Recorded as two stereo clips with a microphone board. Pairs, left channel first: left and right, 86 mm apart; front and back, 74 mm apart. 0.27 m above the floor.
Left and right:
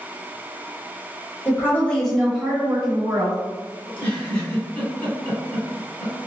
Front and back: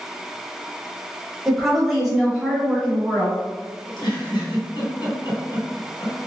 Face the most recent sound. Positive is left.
turn(degrees=15)